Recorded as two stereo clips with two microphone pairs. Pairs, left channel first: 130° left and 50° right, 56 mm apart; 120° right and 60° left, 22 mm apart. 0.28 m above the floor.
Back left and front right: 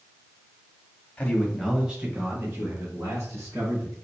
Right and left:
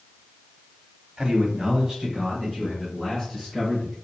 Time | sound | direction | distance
1.2 | a man speaking | 80° left | 1.2 m